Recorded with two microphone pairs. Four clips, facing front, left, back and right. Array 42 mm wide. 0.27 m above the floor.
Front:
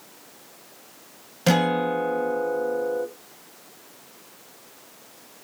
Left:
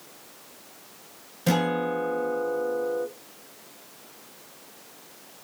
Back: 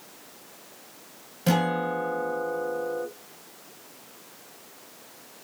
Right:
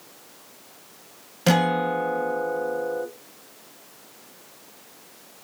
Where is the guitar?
55° right, 0.7 m.